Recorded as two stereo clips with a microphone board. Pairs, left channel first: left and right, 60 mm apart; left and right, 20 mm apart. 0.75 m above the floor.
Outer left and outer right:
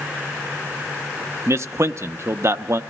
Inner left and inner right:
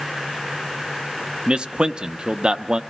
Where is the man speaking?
50° right (ahead or behind), 0.6 m.